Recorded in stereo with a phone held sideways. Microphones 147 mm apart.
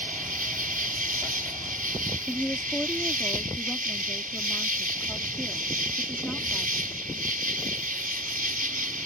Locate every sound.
0.0 s an insect: 75° right (ahead or behind)
2.3 s a woman speaking: 5° left (ahead or behind)